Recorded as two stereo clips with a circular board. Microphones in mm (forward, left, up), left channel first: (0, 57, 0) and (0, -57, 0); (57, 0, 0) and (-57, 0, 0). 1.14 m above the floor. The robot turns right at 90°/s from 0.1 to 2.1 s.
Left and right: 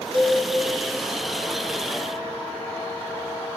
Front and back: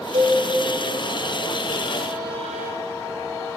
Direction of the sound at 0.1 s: 135° right.